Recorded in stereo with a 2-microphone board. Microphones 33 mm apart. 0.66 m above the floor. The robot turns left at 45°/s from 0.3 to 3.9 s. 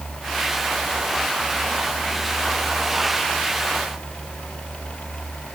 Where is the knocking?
I don't hear knocking.